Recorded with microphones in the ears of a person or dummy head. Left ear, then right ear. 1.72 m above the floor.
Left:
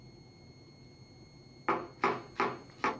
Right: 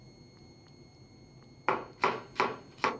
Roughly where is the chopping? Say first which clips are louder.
Right 2 dB; right.